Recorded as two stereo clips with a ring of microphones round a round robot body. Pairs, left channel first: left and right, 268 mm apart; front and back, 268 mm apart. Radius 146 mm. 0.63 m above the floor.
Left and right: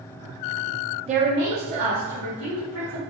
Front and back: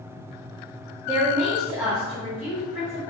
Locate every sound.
1.1 s a woman speaking: 115° right, 0.5 m; by 3.0 s 100° right, 3 m